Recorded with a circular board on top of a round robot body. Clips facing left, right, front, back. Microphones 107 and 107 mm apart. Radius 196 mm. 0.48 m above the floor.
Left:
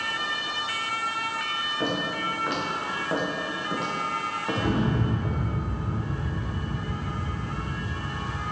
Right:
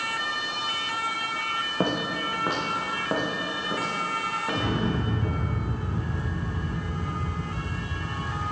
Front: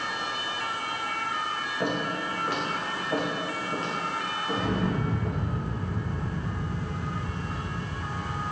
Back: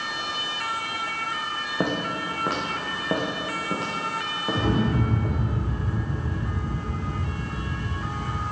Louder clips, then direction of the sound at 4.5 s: Left 3 dB, back 5 dB; 170° left.